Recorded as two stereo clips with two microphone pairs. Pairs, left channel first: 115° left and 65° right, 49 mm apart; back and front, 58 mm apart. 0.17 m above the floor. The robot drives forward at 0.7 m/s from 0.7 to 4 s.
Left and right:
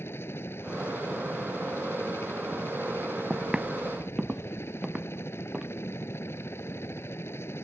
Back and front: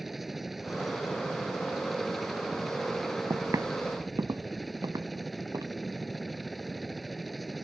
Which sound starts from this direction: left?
A helicopter, at 0.0 s.